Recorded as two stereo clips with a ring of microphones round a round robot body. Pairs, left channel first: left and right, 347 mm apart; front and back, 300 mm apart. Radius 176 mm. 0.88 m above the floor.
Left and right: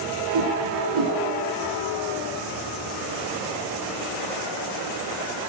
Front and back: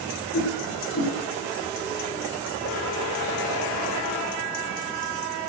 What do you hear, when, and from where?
0.3 s a whoosh: 60° right, 2.5 m